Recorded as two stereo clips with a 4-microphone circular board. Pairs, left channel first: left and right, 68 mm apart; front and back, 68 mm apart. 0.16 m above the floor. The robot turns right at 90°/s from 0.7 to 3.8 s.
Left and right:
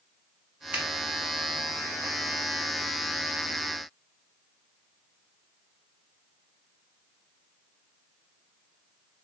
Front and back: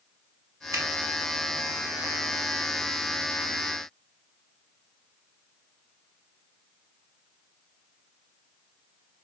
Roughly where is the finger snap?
Behind right.